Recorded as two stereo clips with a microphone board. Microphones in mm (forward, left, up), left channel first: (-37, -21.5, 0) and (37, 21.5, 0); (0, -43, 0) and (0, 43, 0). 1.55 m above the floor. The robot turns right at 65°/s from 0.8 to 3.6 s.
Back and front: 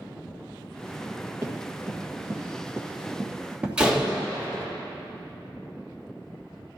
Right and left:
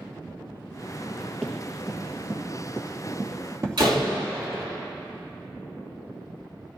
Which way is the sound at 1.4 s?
Straight ahead.